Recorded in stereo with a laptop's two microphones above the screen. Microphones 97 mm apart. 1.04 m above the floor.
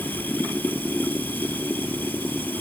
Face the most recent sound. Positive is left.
turn(degrees=20)  # may be behind; listen again after turning